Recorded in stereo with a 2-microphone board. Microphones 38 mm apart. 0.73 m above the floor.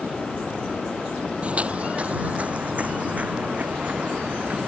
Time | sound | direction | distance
1.4 | footsteps | 35° right (ahead or behind) | ?